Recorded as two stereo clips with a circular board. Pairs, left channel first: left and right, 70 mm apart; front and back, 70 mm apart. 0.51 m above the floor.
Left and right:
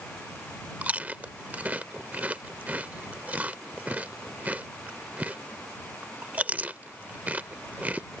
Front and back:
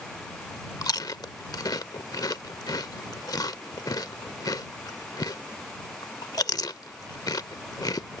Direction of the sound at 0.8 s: 20° right.